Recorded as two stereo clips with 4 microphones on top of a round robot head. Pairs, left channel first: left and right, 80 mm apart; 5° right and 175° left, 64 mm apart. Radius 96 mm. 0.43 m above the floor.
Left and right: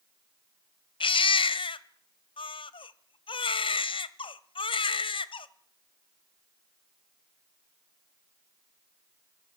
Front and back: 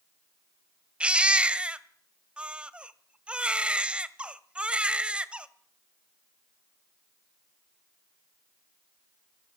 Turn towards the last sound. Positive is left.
turn(degrees=100)